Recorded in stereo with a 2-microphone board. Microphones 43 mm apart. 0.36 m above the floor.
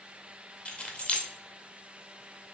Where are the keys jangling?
30° left (ahead or behind), 0.6 m.